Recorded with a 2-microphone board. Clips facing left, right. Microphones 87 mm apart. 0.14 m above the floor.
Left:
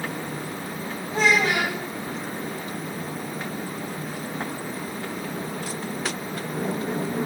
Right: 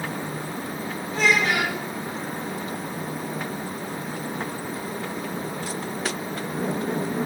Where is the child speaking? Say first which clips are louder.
Left 1 dB; 25° left (ahead or behind), 4 m.